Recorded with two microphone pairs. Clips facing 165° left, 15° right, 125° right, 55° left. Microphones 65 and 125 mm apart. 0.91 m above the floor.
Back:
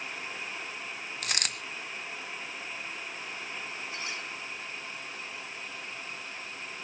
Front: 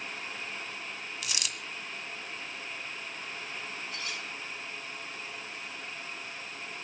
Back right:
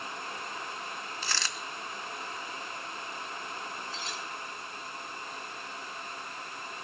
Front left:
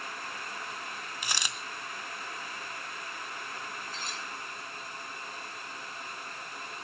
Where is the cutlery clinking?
100° left, 7.5 m.